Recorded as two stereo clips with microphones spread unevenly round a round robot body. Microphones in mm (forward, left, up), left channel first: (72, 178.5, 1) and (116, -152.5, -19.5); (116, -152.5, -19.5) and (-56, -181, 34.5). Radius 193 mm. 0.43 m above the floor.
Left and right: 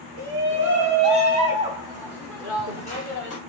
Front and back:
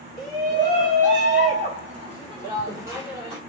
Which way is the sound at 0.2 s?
120° right.